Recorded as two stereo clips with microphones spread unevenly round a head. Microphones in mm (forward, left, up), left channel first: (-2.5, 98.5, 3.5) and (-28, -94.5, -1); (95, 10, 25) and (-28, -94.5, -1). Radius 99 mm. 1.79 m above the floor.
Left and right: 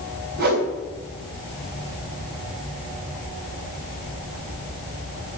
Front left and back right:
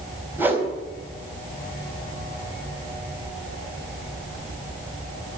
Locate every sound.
0.4 s a whoosh: 60° right, 3 m